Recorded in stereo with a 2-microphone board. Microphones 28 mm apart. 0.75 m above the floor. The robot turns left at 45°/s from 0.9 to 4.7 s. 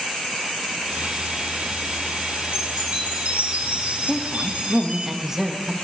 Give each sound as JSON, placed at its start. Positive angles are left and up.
{"t": 2.5, "sound": "a chime", "azimuth_deg": -45, "distance_m": 2.5}
{"t": 4.1, "sound": "a woman speaking", "side_deg": -15, "distance_m": 0.9}